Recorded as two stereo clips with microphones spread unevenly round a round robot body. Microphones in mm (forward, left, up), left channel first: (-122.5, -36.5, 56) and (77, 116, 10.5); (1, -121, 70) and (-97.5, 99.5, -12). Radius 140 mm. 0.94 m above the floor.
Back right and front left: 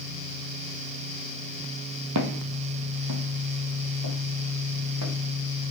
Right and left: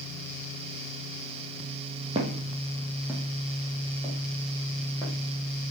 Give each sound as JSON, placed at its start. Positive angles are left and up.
{"t": 2.1, "sound": "footsteps", "azimuth_deg": 35, "distance_m": 1.6}